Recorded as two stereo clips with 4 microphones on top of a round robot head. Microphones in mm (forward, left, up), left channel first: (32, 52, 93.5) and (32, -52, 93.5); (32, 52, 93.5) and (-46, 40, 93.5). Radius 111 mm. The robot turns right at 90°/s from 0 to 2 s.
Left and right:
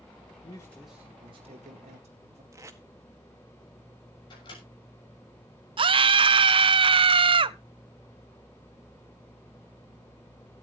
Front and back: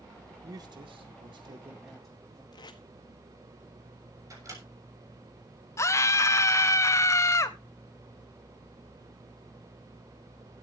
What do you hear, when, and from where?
0.4 s a man speaking: 135° left, 2 m; by 2.4 s 80° right, 2 m
2.5 s tape being pulled: 25° right, 1.8 m
4.3 s a microwave: 145° left, 7 m
5.8 s a scream: 50° right, 0.8 m